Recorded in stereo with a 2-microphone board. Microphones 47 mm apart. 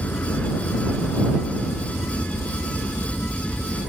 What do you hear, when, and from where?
0.0 s a helicopter: 40° left (ahead or behind)